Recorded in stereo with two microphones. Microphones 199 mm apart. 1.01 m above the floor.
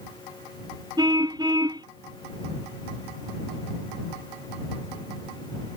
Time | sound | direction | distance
1.0 | a car horn | 20° right (ahead or behind) | ?